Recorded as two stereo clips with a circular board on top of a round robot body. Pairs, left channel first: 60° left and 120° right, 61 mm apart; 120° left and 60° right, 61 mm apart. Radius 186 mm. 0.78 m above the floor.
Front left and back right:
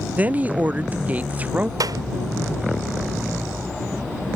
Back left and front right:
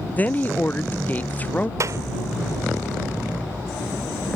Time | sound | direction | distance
0.2 | a woman speaking | straight behind | ?
1.8 | a clap | 100° right | ?